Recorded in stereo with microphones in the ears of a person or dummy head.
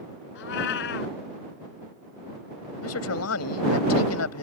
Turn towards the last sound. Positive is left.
turn(degrees=85)